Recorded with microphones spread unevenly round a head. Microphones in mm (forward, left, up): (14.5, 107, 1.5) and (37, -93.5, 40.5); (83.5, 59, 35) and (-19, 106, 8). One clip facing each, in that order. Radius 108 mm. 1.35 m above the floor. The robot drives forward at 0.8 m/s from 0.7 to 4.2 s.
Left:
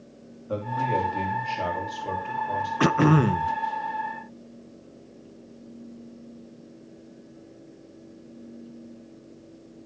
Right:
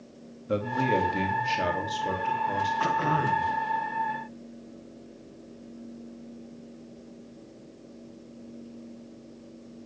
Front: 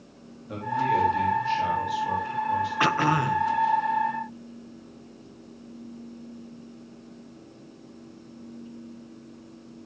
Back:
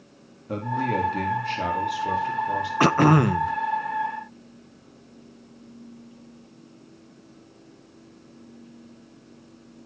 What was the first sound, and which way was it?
A man speaking, 150° right.